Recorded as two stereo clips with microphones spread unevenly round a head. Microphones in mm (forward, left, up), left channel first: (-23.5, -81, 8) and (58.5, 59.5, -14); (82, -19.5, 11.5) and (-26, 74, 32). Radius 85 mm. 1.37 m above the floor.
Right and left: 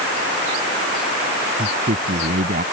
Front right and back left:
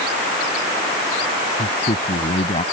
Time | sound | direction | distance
1.6 | a man speaking | 10° left | ?